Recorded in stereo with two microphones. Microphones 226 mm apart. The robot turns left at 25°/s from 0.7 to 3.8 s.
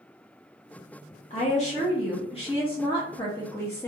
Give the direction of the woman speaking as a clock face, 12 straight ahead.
9 o'clock.